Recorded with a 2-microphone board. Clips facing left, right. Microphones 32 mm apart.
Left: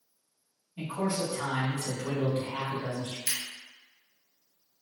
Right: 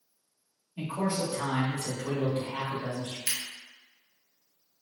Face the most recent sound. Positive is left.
turn(degrees=-25)  # may be behind; listen again after turning